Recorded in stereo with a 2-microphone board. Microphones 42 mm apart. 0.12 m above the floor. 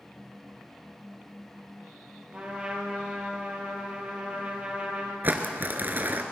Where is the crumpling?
45° right (ahead or behind), 1.2 m.